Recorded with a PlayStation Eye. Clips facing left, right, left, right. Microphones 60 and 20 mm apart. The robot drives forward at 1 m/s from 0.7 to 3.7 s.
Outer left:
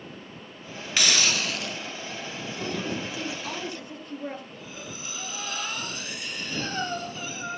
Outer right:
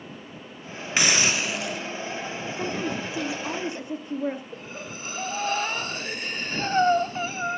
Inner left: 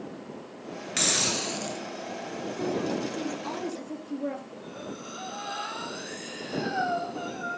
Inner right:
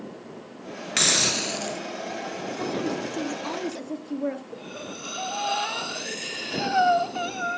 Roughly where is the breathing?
Right.